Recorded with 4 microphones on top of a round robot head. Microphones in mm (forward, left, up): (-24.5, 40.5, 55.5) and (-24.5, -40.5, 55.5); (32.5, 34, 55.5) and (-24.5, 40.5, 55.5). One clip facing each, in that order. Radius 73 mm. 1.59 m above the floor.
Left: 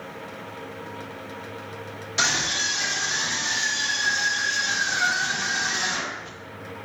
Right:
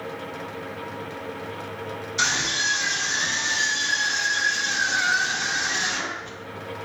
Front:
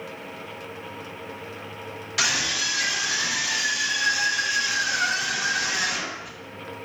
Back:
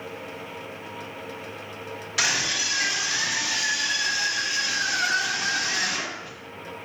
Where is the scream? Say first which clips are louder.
Even, even; 85° left, 2.5 m; by 6.3 s 70° left, 8 m.